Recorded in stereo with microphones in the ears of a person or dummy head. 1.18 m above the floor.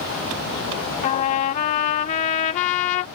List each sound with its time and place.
1.0 s a trumpet: 45° left (ahead or behind)